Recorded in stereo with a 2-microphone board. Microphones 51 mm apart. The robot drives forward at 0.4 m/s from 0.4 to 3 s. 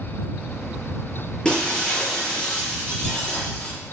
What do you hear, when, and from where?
1.4 s breaking glass: 15° left (ahead or behind), 6 m